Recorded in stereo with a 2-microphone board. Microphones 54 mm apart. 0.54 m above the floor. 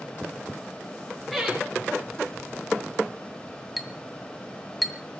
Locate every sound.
1.3 s laughter: centre (ahead or behind), 9 m
3.8 s a clink: centre (ahead or behind), 2.0 m